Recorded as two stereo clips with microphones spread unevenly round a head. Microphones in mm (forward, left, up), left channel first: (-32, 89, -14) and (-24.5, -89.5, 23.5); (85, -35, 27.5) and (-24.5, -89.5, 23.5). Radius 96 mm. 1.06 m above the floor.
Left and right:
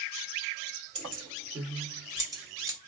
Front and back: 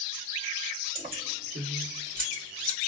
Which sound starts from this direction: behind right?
Keys jangling, at 0.9 s.